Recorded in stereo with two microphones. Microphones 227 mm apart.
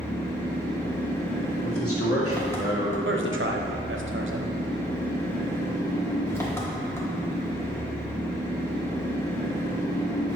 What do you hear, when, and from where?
0.0 s an engine running: 10° left (ahead or behind), 1.3 m
1.6 s a man speaking: 90° left, 2 m
3.0 s a man speaking: 60° right (ahead or behind), 0.8 m